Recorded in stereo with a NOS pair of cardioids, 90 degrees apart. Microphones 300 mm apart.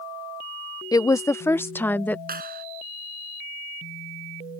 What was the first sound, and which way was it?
A woman speaking, 15° left.